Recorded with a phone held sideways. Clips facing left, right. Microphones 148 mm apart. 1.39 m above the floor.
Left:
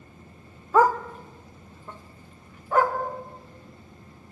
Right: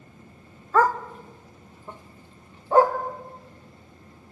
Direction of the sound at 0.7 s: 15° left (ahead or behind).